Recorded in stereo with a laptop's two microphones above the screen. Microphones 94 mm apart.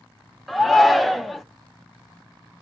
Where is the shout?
Centre (ahead or behind), 0.5 m.